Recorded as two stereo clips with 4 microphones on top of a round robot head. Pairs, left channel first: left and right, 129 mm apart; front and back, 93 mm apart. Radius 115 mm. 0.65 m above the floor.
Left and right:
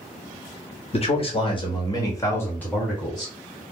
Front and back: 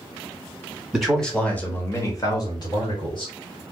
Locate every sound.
0.9 s a man speaking: 95° left, 1.5 m; by 3.3 s straight ahead, 1.9 m